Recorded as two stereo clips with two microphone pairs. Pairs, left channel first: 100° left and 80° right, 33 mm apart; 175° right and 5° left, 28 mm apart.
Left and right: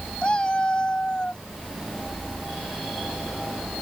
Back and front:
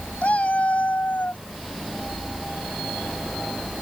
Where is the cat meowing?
155° left; by 1.4 s 165° left.